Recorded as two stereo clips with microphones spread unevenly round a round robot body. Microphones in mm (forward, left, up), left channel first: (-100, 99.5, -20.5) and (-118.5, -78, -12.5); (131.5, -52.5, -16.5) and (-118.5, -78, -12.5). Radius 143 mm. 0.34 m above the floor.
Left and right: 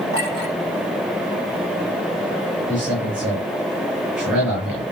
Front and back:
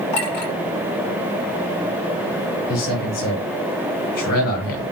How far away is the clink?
About 4 m.